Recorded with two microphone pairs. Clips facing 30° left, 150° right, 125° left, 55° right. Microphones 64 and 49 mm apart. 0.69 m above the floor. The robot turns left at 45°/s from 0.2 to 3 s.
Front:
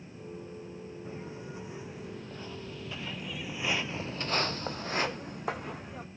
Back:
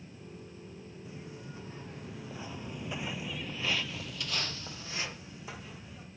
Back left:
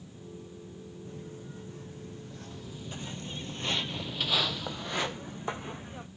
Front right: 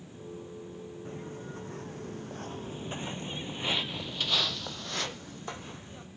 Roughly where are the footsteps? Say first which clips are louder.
Front 3 dB, front right 3 dB; ahead.